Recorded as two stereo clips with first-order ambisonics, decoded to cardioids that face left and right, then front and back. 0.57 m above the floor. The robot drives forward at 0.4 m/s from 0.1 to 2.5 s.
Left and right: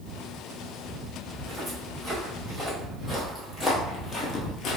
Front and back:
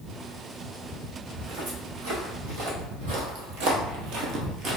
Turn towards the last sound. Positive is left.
turn(degrees=130)